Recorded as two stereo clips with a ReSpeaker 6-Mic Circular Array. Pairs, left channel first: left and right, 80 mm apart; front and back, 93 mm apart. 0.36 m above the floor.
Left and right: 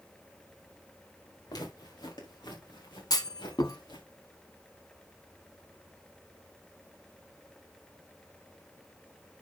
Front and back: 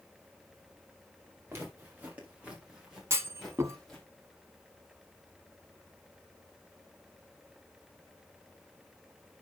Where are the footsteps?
115° left, 4.5 m; by 4.0 s 85° left, 4.5 m.